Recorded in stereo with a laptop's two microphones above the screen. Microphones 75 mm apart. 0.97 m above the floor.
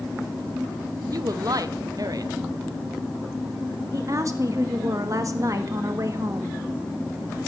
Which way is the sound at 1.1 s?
50° right (ahead or behind).